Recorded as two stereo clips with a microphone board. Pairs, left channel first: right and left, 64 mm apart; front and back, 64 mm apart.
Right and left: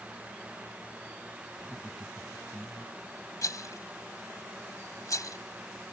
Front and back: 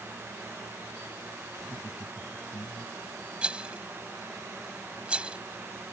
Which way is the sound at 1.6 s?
Straight ahead.